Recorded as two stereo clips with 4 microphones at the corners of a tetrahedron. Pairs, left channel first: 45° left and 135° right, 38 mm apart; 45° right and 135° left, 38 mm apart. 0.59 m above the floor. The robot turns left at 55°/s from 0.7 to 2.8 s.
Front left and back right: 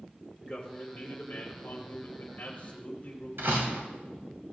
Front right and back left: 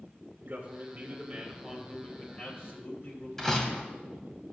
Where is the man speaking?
100° left, 3.5 m; by 3.3 s 15° right, 3.5 m.